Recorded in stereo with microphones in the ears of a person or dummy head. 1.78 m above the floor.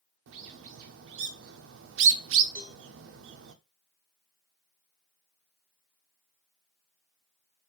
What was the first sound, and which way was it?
A bird, 70° right (ahead or behind).